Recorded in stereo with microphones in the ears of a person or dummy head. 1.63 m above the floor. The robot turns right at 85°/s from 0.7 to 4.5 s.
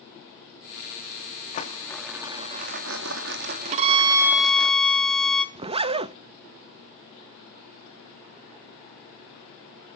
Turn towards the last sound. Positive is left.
turn(degrees=-25)  # may be behind; listen again after turning